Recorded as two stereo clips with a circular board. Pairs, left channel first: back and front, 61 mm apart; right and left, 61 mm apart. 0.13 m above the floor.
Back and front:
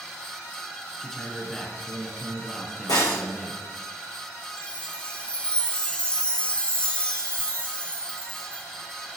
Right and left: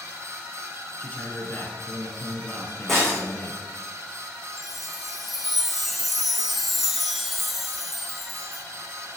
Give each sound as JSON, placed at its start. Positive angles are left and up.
{"t": 1.0, "sound": "a man speaking", "azimuth_deg": -100, "distance_m": 1.6}
{"t": 2.9, "sound": "breaking glass", "azimuth_deg": -175, "distance_m": 3.0}
{"t": 4.6, "sound": "a chime", "azimuth_deg": 170, "distance_m": 0.9}